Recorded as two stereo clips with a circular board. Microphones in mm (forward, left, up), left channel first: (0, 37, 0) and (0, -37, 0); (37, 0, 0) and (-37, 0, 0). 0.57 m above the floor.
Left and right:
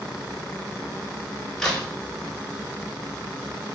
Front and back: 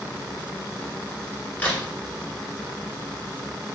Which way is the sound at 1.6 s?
25° left.